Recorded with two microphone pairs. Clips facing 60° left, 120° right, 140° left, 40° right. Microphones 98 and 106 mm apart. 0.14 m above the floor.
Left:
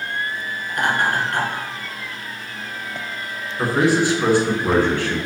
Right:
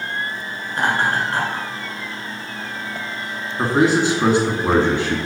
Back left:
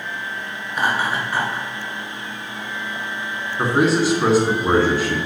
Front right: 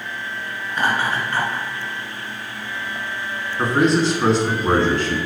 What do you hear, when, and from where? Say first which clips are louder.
0.7 s laughter: right 1 dB, even; 150° right, 1.5 m
3.6 s a man speaking: right 1 dB, even; 145° right, 1.1 m